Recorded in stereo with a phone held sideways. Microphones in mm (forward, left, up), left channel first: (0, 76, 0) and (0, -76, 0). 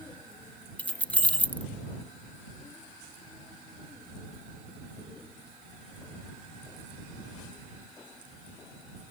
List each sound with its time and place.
0.8 s keys jangling: 10° left (ahead or behind)